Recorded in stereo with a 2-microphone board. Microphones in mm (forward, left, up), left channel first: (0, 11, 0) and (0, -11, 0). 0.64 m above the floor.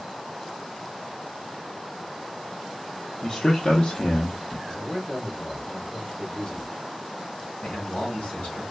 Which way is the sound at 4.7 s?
45° left (ahead or behind).